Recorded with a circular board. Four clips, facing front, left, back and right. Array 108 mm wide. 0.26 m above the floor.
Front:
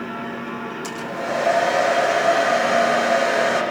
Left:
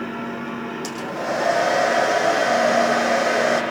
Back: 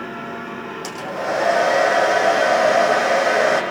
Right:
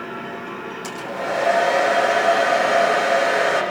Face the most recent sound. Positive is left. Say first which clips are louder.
# right 1 dB, back 3 dB
turn(degrees=155)